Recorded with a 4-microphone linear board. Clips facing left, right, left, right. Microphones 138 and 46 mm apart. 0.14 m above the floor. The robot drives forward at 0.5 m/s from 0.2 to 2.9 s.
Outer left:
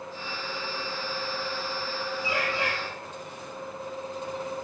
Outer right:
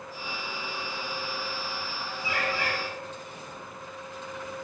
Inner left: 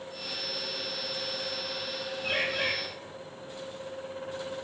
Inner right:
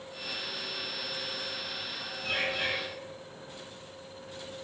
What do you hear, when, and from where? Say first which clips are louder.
2.2 s a bird: even, inner left 1 dB; 30° left (ahead or behind), 5 m